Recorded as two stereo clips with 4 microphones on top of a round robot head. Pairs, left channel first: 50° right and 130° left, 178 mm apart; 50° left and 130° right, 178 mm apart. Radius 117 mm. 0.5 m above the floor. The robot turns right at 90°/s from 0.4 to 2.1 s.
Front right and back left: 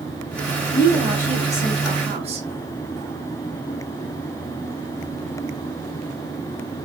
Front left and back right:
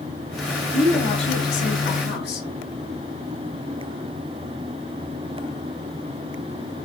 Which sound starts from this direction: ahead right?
A woman speaking, at 0.7 s.